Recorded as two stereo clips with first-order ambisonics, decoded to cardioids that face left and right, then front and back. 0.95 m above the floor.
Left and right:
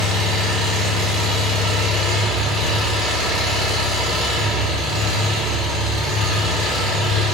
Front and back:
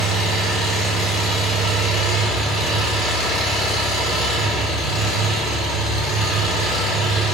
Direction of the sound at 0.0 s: 50° right.